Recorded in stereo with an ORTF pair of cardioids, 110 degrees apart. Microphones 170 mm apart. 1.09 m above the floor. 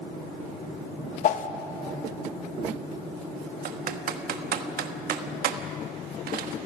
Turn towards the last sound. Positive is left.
turn(degrees=-60)